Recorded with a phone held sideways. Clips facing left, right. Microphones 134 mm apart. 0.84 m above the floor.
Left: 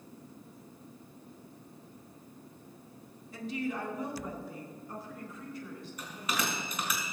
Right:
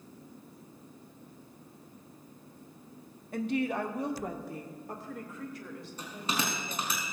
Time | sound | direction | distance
3.3 | a woman speaking | 60° right (ahead or behind) | 1.1 m
6.0 | a bell | 30° right (ahead or behind) | 4 m